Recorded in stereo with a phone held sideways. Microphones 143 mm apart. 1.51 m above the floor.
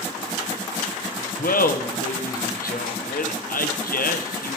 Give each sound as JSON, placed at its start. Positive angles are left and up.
{"t": 1.4, "sound": "laughter", "side_deg": 85, "distance_m": 1.1}